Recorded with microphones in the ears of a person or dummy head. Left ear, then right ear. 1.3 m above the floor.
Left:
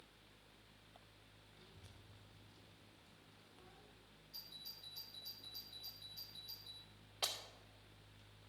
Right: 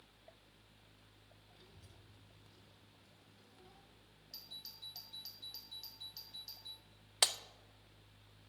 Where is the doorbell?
45° right (ahead or behind), 3 m.